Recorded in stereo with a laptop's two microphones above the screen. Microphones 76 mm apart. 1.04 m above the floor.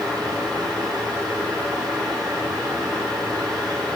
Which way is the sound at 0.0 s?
60° right (ahead or behind).